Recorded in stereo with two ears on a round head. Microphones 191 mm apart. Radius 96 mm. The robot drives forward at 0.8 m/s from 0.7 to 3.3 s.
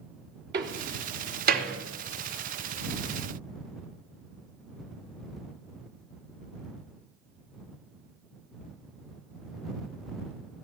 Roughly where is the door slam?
Right.